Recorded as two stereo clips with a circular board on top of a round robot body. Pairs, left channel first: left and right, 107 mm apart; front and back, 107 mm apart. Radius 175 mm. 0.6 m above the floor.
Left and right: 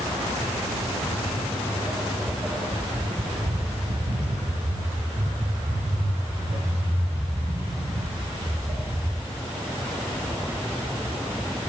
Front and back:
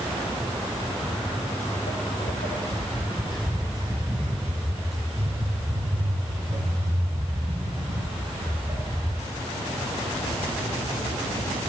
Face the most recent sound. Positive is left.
turn(degrees=-110)